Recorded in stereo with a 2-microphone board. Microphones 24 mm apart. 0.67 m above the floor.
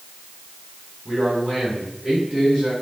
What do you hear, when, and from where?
1.1 s a man speaking: 30° right (ahead or behind), 5.5 m